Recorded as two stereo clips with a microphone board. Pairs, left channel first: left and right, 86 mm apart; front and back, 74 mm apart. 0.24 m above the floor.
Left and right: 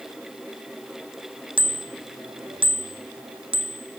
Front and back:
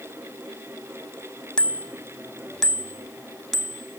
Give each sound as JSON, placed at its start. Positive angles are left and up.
{"t": 1.6, "sound": "a bicycle bell", "azimuth_deg": -80}